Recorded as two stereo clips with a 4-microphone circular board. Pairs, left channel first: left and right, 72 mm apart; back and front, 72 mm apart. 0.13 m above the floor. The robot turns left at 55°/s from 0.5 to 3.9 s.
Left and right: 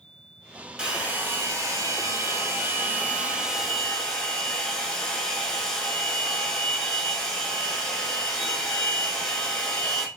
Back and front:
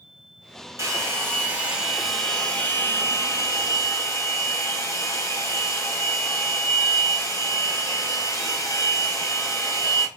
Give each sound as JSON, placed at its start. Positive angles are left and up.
{"t": 0.8, "sound": "a hair dryer", "azimuth_deg": -20, "distance_m": 0.7}